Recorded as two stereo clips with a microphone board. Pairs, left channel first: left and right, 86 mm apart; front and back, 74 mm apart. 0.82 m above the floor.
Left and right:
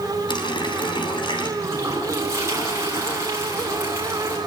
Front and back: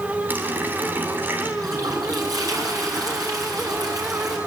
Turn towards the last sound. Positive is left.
turn(degrees=-145)